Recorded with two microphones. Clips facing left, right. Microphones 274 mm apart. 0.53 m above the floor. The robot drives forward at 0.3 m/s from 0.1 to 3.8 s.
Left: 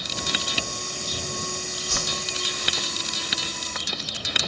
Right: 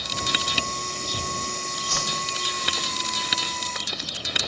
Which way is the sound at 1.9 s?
40° left (ahead or behind).